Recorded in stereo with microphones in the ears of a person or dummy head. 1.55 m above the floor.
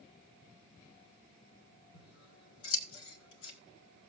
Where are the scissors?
70° left (ahead or behind), 1.6 m.